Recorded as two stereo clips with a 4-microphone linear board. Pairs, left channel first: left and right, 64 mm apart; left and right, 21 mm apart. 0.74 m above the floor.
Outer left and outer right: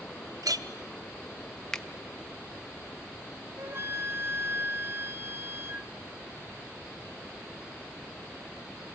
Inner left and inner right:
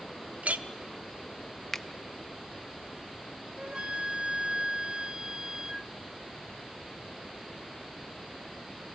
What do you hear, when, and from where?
0.4 s a clink: 75° right (ahead or behind), 0.6 m
1.7 s a finger snap: 5° left (ahead or behind), 0.7 m
3.6 s a flute: 40° right (ahead or behind), 0.5 m